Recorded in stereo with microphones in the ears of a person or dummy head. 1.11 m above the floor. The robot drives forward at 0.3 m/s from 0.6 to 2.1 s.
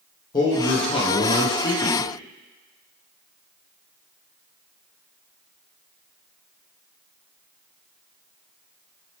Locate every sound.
0.3 s a man speaking: 25° left (ahead or behind), 0.5 m